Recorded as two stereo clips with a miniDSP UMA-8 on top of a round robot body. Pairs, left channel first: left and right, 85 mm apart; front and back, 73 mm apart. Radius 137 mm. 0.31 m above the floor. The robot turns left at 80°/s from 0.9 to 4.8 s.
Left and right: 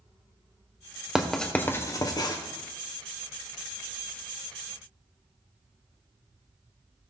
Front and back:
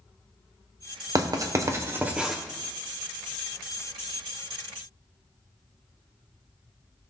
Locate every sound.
1.1 s writing: 170° right, 1.6 m; by 2.4 s 95° left, 1.6 m